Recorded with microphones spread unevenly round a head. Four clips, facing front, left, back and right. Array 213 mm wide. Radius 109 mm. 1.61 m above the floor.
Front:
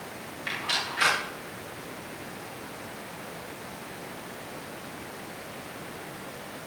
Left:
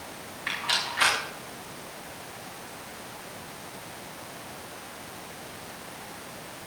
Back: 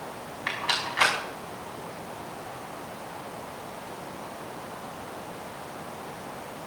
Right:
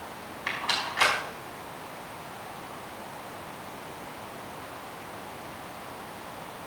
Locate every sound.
0.5 s a rattle: 175° right, 5 m